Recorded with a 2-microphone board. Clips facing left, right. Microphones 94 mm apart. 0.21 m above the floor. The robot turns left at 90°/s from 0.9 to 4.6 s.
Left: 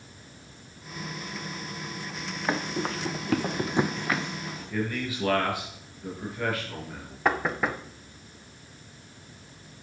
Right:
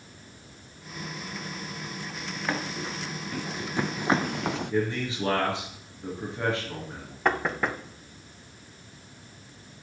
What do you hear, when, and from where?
2.5 s running footsteps: 15° left (ahead or behind), 1.3 m; by 4.7 s 60° right (ahead or behind), 0.5 m
4.7 s a man speaking: 25° right (ahead or behind), 3.5 m
7.2 s knocking: centre (ahead or behind), 0.7 m